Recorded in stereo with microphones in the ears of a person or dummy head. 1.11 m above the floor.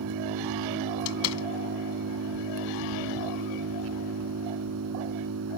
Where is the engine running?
75° right (ahead or behind).